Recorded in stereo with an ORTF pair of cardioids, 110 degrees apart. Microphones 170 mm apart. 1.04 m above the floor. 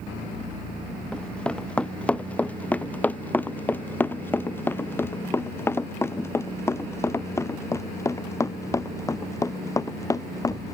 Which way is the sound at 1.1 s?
5° left.